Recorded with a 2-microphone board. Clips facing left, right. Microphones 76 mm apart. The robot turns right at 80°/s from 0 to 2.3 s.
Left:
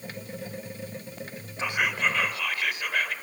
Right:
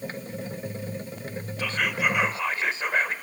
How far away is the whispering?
About 3 m.